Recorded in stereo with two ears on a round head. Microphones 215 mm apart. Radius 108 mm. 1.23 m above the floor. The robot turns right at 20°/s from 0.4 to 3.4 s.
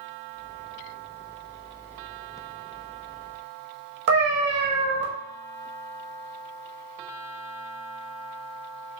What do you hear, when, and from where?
4.1 s a cat meowing: 50° right (ahead or behind), 0.7 m